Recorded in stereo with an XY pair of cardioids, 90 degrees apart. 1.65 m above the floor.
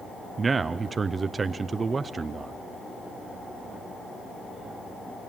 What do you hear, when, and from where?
0.4 s a man speaking: 40° right, 0.6 m